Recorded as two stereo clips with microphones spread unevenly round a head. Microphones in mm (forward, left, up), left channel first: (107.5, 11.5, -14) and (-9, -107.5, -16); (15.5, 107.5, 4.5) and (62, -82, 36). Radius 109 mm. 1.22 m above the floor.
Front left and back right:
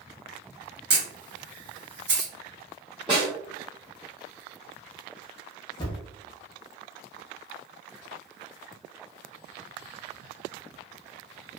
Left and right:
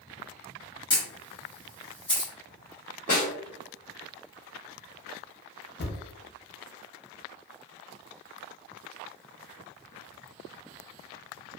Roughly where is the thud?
Left.